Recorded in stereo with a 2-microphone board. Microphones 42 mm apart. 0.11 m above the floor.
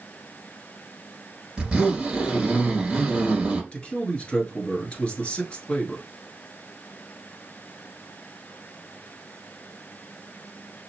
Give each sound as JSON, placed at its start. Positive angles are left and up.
{"t": 1.6, "sound": "a zipper", "side_deg": -15, "distance_m": 2.0}
{"t": 3.7, "sound": "a man speaking", "side_deg": 30, "distance_m": 1.4}